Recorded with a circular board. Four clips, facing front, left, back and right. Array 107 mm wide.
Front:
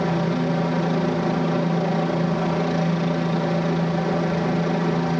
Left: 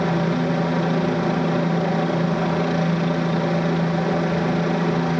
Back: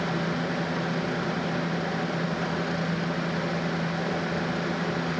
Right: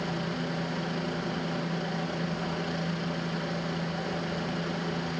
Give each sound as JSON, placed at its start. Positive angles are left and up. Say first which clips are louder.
{"t": 0.0, "sound": "a helicopter", "louder": "left 11 dB, front 6 dB", "azimuth_deg": 55}